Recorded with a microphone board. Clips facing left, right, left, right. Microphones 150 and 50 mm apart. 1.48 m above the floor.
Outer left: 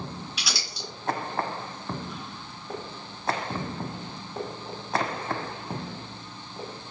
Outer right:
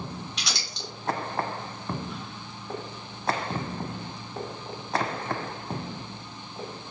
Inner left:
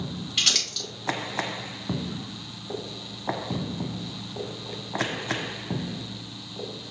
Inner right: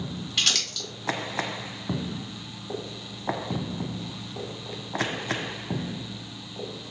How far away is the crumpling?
About 2 m.